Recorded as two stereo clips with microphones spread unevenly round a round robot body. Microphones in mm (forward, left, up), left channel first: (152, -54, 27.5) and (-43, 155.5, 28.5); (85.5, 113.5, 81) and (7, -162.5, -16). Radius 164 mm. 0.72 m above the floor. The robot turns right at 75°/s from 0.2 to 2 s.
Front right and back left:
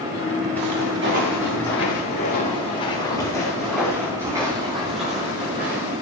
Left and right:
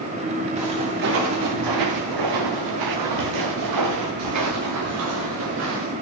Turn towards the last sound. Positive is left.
turn(degrees=-165)